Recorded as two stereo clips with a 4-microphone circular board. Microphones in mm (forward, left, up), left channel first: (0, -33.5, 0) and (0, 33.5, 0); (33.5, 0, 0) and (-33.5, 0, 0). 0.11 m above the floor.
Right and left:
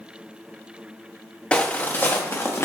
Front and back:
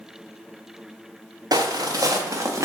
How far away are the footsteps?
About 0.9 m.